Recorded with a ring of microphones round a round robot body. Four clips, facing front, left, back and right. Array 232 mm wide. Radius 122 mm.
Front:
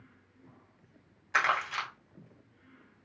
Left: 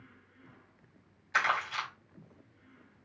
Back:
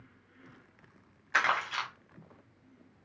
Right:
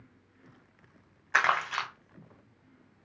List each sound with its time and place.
1.3 s crumpling: 90° right, 2 m